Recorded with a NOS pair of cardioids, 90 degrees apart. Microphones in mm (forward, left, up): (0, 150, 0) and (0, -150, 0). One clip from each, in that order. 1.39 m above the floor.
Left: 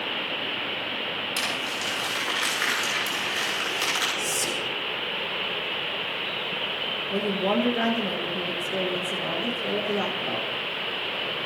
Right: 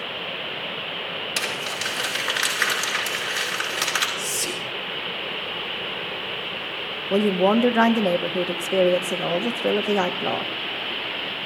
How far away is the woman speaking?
About 1.5 m.